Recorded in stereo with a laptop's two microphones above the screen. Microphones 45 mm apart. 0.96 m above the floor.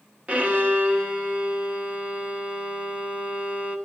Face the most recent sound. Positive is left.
turn(degrees=-30)  # may be behind; listen again after turning